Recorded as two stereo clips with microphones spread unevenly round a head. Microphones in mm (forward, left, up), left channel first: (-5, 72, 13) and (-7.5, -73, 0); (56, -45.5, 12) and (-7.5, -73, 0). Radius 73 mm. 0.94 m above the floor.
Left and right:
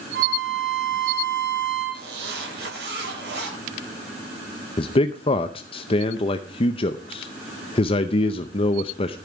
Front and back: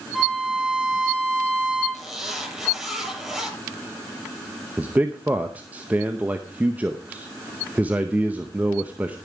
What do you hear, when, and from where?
0.1 s a violin: 65° right, 7 m
1.9 s a zipper: 70° right, 7.5 m
4.8 s a man speaking: 140° left, 0.6 m